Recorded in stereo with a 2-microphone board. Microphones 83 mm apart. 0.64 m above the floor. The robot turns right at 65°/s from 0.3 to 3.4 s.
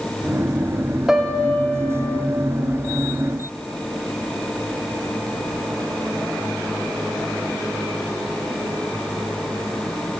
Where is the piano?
5° right, 1.1 m; by 2.3 s 70° left, 1.1 m.